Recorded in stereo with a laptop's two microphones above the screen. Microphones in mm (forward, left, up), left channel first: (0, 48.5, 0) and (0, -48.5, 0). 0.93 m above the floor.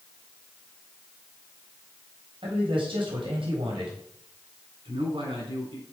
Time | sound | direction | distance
2.4 | a man speaking | 60° right (ahead or behind) | 4.5 m
4.8 | a man speaking | 60° right (ahead or behind) | 7.5 m